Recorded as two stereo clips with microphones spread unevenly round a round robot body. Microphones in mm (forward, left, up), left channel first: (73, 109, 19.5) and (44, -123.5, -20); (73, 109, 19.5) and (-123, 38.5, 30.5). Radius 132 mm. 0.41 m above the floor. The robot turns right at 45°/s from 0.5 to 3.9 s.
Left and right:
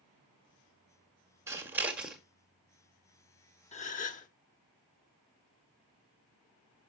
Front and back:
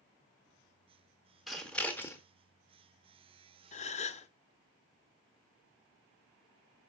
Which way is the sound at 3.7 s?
25° left.